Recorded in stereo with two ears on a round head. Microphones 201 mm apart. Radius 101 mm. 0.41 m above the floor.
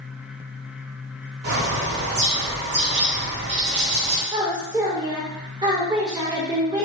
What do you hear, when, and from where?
1.4 s a bird: 50° right (ahead or behind), 1.3 m
4.3 s a woman speaking: 15° right (ahead or behind), 1.0 m